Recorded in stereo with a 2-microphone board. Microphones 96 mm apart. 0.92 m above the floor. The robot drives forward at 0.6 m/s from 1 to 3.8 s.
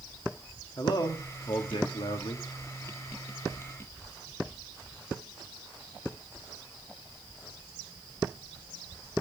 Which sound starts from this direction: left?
A man speaking, at 0.8 s.